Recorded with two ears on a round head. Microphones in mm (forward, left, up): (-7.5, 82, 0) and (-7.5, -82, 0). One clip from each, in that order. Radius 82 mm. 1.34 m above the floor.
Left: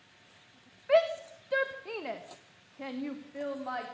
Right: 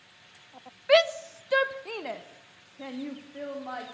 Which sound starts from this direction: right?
A shout, at 0.9 s.